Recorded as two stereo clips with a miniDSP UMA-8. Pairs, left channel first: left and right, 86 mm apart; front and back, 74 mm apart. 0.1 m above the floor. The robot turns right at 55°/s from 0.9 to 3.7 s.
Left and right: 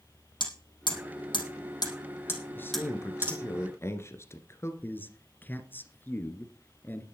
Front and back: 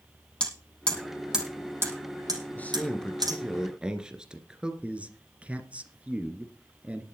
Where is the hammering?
75° left, 4.5 m; by 3.4 s 150° right, 4.5 m.